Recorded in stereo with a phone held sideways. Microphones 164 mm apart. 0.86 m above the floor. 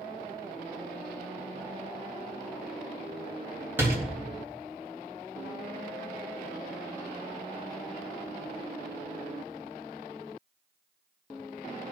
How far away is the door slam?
About 4 m.